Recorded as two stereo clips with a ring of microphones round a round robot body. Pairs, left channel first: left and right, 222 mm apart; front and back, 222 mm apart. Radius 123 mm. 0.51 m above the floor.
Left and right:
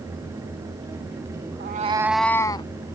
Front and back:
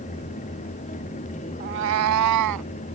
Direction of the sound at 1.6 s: 130° right.